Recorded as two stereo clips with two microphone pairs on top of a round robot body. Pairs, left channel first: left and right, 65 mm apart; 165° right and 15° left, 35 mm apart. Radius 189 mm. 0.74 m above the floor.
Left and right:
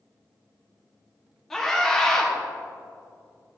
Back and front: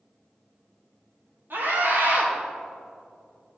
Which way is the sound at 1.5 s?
5° left.